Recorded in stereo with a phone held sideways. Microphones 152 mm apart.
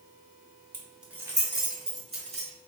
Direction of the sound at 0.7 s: 10° left (ahead or behind).